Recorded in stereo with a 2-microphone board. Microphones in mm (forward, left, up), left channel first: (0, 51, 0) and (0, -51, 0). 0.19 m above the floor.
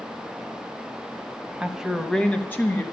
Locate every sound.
1.6 s a woman speaking: 10° right (ahead or behind), 1.1 m; by 2.8 s 25° left (ahead or behind), 1.1 m